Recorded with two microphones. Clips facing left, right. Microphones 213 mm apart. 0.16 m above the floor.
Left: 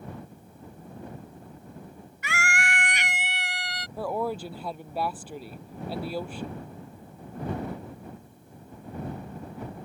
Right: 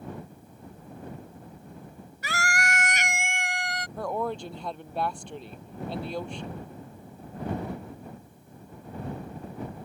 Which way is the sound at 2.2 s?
40° right (ahead or behind).